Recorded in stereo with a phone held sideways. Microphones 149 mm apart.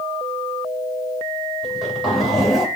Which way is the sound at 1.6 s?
Centre (ahead or behind).